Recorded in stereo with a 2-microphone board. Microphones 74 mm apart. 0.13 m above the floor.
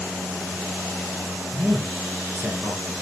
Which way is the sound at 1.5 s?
35° right (ahead or behind).